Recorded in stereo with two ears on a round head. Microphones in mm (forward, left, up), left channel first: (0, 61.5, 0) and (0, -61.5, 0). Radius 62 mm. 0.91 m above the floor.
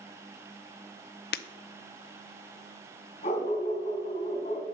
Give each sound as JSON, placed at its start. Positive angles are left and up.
{"t": 1.3, "sound": "breaking glass", "side_deg": 80, "distance_m": 0.6}
{"t": 3.2, "sound": "a dog barking", "side_deg": 45, "distance_m": 3.0}